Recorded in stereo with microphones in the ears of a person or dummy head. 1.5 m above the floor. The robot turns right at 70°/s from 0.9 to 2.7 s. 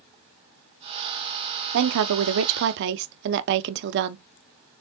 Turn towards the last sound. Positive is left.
turn(degrees=-65)